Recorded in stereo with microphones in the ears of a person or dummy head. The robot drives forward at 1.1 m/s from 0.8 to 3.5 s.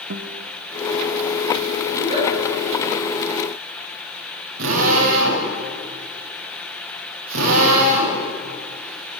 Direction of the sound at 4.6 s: 85° right.